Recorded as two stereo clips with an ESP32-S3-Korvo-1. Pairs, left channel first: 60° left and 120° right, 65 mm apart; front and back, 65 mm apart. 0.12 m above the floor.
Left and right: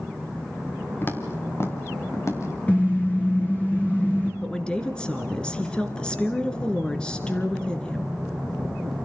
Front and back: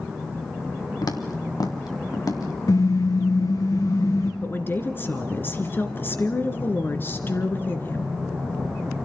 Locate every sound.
1.0 s footsteps: 5° left, 2.0 m; by 2.5 s 20° left, 3 m
2.7 s a car horn: 10° right, 3.5 m
4.4 s a woman speaking: 5° right, 1.7 m